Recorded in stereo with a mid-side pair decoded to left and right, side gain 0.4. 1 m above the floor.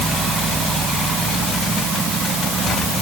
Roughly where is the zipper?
I don't hear a zipper.